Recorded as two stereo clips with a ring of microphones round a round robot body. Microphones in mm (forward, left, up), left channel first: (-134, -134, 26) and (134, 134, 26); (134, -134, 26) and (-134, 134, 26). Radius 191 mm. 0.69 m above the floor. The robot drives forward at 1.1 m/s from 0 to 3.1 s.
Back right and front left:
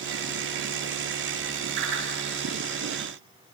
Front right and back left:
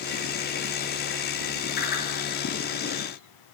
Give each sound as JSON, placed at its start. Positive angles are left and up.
{"t": 1.8, "sound": "a whoosh", "azimuth_deg": 20, "distance_m": 7.0}